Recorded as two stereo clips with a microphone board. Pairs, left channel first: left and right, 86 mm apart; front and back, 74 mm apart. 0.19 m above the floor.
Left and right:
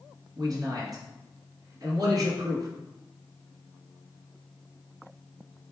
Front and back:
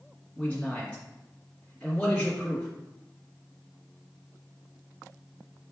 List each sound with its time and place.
0.4 s a man speaking: 70° right, 1.6 m